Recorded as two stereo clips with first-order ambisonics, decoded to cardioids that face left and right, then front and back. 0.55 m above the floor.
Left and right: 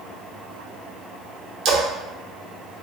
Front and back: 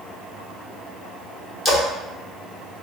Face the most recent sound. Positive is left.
turn(degrees=-70)